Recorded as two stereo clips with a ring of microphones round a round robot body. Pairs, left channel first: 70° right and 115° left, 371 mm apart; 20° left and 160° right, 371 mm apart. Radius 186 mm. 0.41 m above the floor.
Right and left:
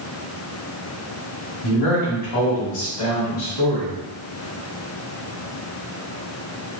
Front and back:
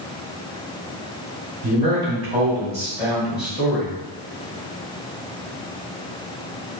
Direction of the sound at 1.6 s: 90° right.